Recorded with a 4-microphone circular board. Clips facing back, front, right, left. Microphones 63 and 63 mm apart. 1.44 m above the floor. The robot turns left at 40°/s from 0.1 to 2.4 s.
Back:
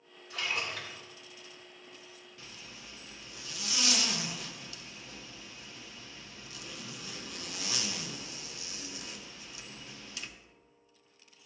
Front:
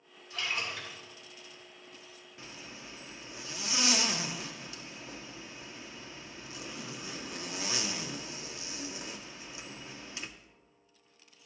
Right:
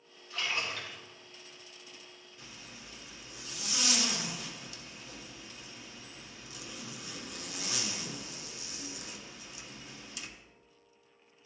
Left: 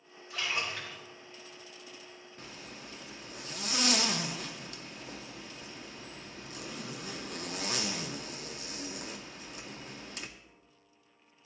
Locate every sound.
0.3 s a splash: 170° left, 3 m; by 1.0 s 145° left, 3 m
2.4 s a zipper: 60° left, 0.6 m